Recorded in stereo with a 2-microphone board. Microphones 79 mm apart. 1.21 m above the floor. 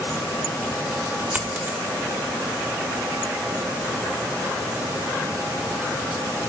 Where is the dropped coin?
20° right (ahead or behind), 1.9 m.